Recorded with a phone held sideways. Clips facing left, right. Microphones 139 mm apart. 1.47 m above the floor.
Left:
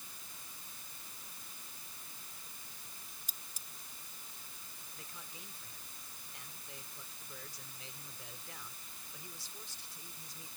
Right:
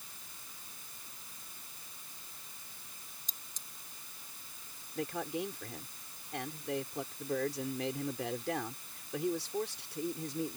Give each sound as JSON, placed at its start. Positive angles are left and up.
{"t": 3.3, "sound": "cutlery clinking", "side_deg": 10}
{"t": 5.0, "sound": "a man speaking", "side_deg": -85}